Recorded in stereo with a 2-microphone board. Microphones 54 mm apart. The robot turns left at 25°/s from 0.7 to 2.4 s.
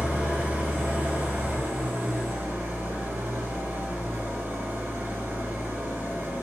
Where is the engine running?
50° right, 1.1 m; by 6.4 s 90° right, 1.1 m.